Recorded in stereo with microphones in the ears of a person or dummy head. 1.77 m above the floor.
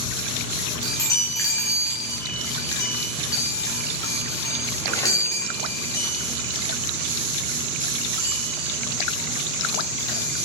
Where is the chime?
15° left (ahead or behind), 0.9 m.